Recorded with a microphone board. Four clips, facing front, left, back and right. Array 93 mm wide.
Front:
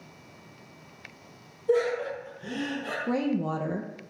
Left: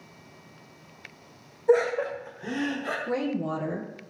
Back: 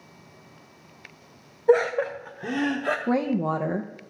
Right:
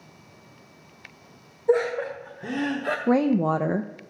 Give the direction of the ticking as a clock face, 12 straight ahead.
I don't hear ticking.